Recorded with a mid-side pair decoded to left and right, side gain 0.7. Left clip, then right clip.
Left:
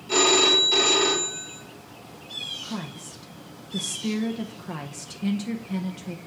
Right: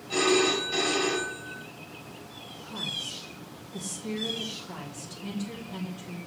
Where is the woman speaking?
55° left, 0.7 m.